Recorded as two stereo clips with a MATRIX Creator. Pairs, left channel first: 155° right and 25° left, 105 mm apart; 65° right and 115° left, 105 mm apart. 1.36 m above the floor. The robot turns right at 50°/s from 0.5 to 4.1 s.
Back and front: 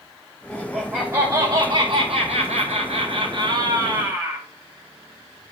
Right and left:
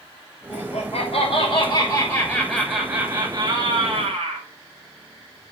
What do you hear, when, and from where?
0.5 s laughter: 75° right, 7 m; by 4.5 s 105° left, 7 m